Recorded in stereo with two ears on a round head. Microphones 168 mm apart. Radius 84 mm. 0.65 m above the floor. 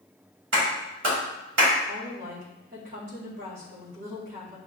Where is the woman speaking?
55° right (ahead or behind), 1.7 m.